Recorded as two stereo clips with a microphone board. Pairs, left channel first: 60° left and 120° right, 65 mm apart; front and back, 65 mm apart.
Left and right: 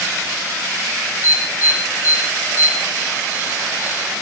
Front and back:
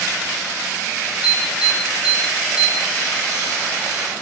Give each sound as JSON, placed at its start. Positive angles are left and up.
{"t": 1.2, "sound": "an alarm", "azimuth_deg": 100, "distance_m": 6.0}